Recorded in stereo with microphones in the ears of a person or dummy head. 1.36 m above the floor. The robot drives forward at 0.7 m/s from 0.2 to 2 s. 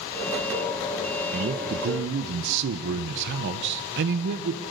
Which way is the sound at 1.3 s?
50° right (ahead or behind).